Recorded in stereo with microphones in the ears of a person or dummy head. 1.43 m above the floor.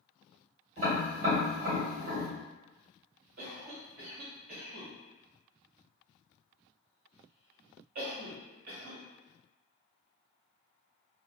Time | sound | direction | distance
0.8 | tapping | 40° right (ahead or behind) | 1.6 m
3.4 | a cough | 50° right (ahead or behind) | 1.3 m